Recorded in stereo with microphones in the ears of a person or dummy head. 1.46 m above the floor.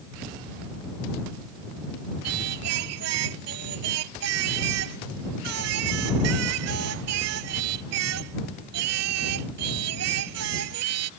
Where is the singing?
75° right (ahead or behind).